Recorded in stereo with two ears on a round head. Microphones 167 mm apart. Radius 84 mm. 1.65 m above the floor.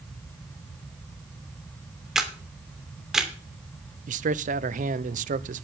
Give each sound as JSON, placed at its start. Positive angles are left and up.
{"t": 2.1, "sound": "a camera shutter", "side_deg": 0, "distance_m": 2.5}
{"t": 4.1, "sound": "a man speaking", "side_deg": -45, "distance_m": 0.9}